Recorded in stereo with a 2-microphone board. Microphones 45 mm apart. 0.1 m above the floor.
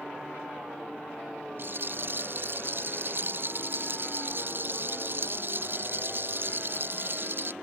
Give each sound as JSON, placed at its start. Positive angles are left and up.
{"t": 1.6, "sound": "a rattle", "side_deg": -50}